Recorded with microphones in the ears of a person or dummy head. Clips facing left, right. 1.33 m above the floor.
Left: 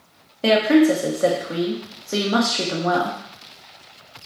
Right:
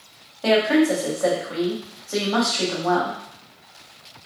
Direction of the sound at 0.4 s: 40° left (ahead or behind).